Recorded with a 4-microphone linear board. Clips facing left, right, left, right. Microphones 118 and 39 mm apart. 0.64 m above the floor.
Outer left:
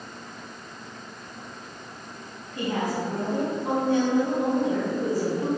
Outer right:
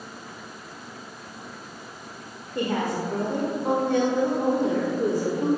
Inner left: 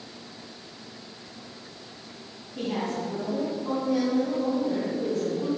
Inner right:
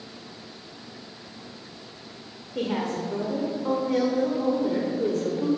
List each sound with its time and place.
2.5 s a woman speaking: 60° right (ahead or behind), 1.6 m